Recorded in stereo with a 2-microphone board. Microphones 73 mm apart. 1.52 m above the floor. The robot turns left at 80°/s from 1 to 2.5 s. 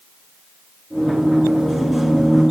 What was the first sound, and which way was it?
Only background noise.